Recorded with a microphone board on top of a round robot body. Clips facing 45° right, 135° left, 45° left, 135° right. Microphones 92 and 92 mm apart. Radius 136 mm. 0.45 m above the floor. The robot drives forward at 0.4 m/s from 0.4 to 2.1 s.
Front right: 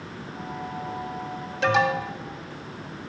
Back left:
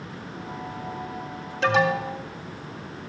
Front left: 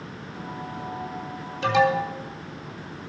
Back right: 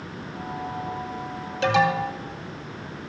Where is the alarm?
135° right, 2.5 m.